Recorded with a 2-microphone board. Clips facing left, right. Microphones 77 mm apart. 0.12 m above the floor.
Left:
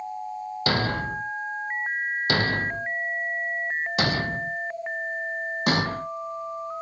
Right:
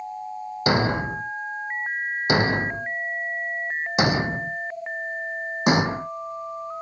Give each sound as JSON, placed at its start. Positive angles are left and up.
{"t": 0.7, "sound": "a thud", "side_deg": -20}